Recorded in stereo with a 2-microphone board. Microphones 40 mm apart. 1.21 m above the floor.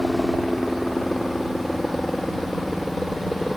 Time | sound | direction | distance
0.0 | a helicopter | 15° left (ahead or behind) | ?